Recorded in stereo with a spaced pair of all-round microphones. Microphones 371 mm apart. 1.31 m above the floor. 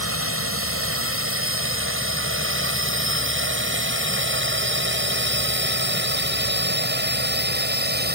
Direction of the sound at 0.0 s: 35° right (ahead or behind).